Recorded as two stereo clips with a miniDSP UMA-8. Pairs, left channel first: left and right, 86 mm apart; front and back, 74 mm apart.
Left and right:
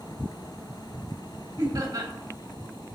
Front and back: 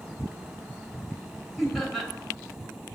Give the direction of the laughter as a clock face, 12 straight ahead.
3 o'clock.